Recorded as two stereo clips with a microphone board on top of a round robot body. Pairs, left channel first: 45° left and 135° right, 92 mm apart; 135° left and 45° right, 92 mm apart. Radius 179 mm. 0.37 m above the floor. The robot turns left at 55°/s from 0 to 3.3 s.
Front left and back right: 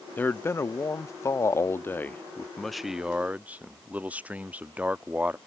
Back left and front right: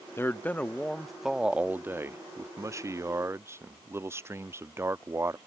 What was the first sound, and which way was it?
A man speaking, 100° left.